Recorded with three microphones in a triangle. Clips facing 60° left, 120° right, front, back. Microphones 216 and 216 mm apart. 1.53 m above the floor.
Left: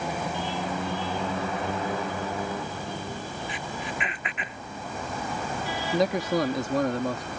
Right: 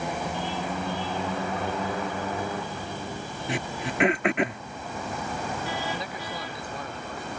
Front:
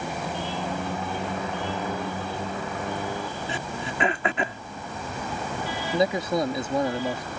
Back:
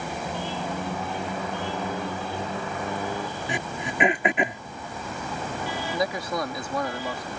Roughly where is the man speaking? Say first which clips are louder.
Left 11 dB, front 6 dB; ahead left.